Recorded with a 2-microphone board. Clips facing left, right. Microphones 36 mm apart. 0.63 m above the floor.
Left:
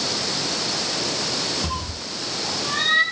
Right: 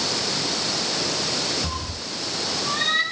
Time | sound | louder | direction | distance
1.6 | a cat meowing | left 1 dB | 30° left (ahead or behind) | 7 m